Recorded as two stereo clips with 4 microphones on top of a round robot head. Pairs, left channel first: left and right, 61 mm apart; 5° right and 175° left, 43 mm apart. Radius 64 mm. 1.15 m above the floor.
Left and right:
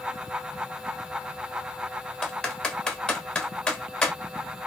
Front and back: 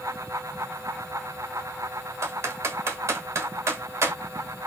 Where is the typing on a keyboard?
165° left, 1.0 m.